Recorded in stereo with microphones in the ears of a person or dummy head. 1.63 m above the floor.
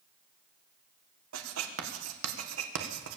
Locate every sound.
1.3 s writing: 80° right, 1.8 m